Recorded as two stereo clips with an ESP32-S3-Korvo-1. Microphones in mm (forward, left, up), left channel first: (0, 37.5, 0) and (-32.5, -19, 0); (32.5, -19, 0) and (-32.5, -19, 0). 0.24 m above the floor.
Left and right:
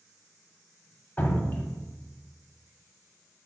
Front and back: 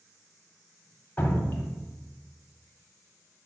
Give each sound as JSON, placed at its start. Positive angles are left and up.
{"t": 1.2, "sound": "dripping", "azimuth_deg": 30, "distance_m": 0.6}